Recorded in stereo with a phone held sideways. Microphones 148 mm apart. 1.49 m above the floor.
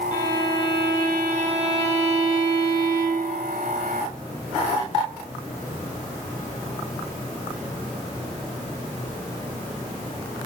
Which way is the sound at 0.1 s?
30° left (ahead or behind).